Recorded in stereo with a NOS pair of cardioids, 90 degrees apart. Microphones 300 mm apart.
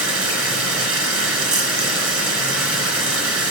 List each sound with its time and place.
0.0 s running water: 55° right, 4 m